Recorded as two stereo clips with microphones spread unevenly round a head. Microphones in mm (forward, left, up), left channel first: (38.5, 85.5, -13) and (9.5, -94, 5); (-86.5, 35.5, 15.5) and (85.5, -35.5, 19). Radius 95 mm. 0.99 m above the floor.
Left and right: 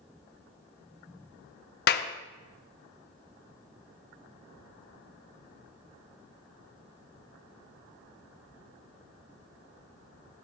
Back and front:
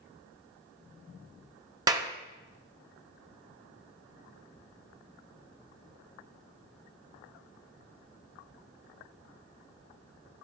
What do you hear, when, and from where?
1.9 s a clap: 50° left, 0.8 m